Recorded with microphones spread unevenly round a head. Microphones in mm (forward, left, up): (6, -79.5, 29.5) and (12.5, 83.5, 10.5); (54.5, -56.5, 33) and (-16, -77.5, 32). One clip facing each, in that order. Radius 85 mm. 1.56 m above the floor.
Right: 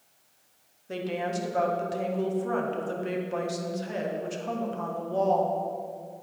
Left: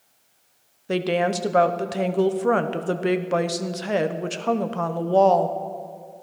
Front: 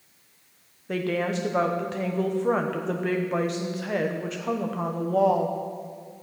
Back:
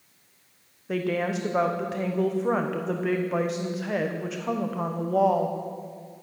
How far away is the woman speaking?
About 0.9 m.